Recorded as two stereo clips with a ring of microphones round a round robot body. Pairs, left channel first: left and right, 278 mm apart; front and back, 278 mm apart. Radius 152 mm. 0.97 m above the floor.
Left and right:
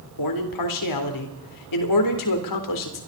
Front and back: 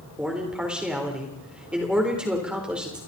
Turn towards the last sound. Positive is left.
turn(degrees=95)